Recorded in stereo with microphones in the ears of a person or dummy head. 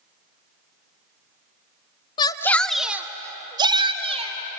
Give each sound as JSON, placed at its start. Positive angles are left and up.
{"t": 2.2, "sound": "a shout", "side_deg": 25, "distance_m": 0.7}